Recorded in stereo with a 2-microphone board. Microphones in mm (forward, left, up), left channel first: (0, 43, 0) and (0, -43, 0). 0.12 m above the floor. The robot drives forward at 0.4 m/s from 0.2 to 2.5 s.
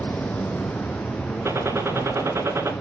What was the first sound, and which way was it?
Running water, 15° left (ahead or behind).